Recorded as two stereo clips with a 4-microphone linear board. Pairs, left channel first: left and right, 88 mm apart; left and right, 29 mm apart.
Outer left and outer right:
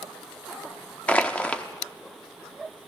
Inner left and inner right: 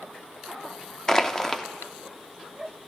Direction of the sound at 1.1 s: 15° left (ahead or behind).